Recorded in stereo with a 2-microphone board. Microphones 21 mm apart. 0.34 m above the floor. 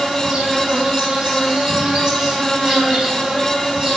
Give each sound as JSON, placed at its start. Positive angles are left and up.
{"t": 0.0, "sound": "an insect", "side_deg": -50, "distance_m": 4.0}